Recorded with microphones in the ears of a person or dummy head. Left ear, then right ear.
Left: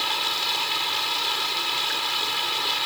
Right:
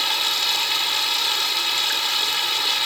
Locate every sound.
0.0 s running water: 25° right (ahead or behind)